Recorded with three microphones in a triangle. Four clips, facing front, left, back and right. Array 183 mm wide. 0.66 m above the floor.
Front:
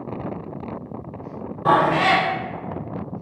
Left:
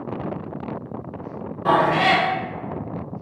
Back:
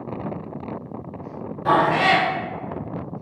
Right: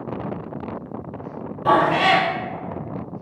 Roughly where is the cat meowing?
Ahead.